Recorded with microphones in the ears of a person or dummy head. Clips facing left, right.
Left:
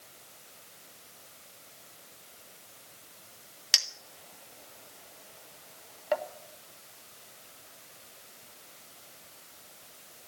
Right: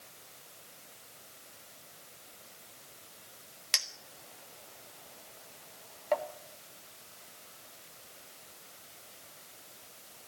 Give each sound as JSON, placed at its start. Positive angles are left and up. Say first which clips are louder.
{"t": 3.7, "sound": "a clink", "louder": "left 1 dB", "side_deg": 5, "distance_m": 1.4}